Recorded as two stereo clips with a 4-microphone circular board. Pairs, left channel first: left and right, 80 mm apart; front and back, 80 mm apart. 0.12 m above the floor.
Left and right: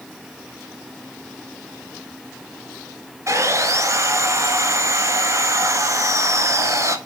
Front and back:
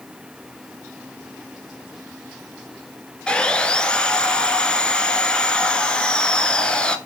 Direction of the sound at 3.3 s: 70° right.